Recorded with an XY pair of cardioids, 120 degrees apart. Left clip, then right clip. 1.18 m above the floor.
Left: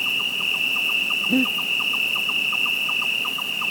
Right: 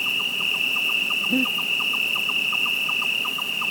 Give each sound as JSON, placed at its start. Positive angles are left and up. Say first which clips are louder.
{"t": 0.0, "sound": "an insect", "louder": "left 1 dB", "azimuth_deg": 0, "distance_m": 0.9}
{"t": 1.3, "sound": "breathing", "louder": "left 1 dB", "azimuth_deg": 20, "distance_m": 1.5}